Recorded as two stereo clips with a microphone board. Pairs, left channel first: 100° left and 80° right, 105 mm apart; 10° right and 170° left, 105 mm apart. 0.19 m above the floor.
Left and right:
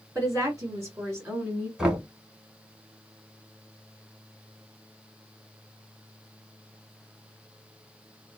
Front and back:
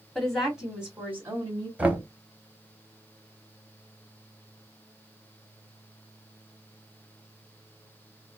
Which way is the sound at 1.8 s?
145° right.